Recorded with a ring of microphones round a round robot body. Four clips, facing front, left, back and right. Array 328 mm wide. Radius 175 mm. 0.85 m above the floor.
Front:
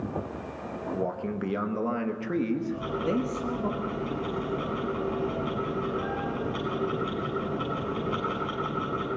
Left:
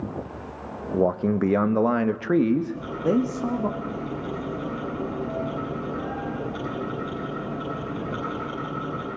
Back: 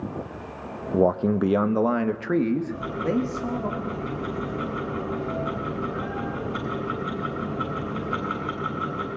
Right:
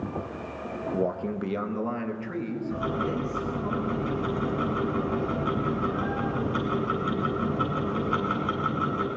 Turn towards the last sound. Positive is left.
turn(degrees=-105)